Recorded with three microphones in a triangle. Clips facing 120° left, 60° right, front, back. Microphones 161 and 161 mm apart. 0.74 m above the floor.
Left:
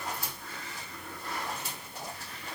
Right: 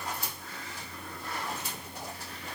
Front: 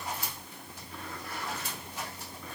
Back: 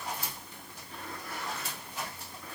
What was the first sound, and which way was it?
Only background noise.